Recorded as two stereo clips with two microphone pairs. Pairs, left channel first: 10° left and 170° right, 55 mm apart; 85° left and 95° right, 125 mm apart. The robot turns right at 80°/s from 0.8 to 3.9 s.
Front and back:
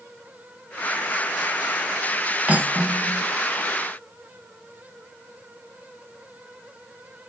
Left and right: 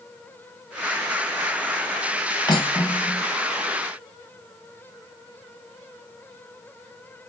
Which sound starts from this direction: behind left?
Cutlery clinking, at 2.5 s.